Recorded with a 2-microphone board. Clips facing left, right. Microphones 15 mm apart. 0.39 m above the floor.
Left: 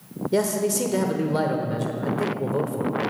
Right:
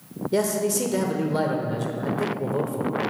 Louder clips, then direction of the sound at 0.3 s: Even; 5° left (ahead or behind).